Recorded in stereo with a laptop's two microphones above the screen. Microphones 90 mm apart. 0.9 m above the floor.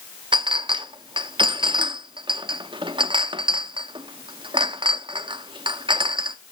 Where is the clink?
65° right (ahead or behind), 0.6 m.